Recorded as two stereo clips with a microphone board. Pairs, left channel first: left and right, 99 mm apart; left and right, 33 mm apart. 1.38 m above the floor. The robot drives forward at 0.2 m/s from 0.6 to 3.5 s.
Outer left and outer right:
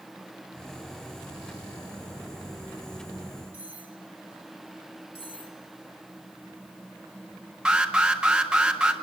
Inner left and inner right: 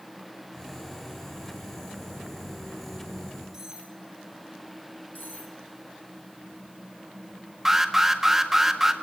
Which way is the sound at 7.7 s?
10° right (ahead or behind).